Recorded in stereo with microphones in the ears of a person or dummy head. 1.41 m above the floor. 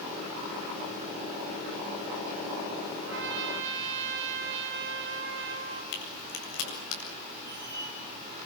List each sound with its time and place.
3.0 s a trumpet: 70° right (ahead or behind), 2.5 m
5.9 s a crack: 75° left (ahead or behind), 8 m
7.5 s a squeak: 15° right (ahead or behind), 2.5 m